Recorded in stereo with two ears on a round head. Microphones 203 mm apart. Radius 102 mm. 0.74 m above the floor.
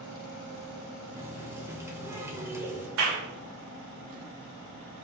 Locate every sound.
1.1 s a running tap: 10° right (ahead or behind), 1.7 m
3.0 s a clap: 75° right (ahead or behind), 2.5 m